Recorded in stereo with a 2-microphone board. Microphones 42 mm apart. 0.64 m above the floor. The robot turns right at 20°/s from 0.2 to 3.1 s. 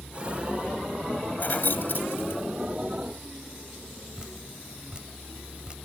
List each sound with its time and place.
1.4 s keys jangling: 50° left (ahead or behind); by 2.4 s 65° left (ahead or behind)
4.2 s dripping: 25° right (ahead or behind)